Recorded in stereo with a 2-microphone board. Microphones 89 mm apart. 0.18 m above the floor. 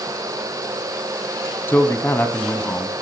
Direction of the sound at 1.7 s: 25° left (ahead or behind).